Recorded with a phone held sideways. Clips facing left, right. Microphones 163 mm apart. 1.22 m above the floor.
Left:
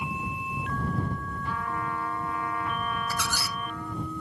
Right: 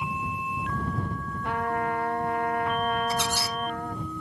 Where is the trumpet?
65° right (ahead or behind).